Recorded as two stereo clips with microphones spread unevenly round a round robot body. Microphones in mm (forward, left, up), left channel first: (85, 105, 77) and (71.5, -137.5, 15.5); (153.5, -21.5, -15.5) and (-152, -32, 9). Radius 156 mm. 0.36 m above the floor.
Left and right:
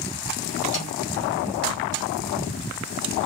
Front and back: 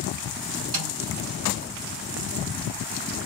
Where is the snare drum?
140° left, 2.5 m.